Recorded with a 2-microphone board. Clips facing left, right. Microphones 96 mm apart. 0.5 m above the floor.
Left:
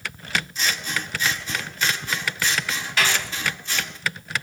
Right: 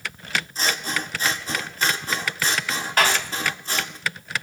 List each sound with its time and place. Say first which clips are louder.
0.6 s scissors: right 1 dB; 35° right (ahead or behind), 1.4 m
3.0 s a clap: right 3 dB; 45° right (ahead or behind), 2.5 m